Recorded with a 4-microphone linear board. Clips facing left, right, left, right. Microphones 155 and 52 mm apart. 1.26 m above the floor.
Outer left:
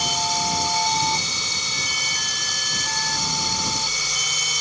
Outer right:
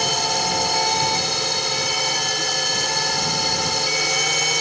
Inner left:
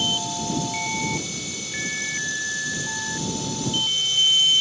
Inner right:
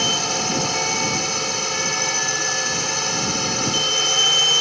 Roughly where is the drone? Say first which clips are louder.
Outer right 2 dB, inner right 4 dB; right.